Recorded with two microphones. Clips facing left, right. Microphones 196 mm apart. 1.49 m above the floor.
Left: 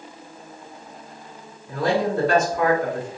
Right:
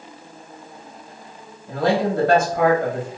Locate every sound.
1.7 s a man speaking: 70° right (ahead or behind), 1.4 m